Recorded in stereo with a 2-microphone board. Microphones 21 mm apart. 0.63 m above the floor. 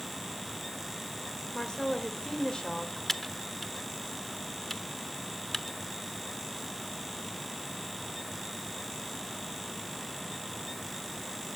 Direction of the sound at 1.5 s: 45° left (ahead or behind).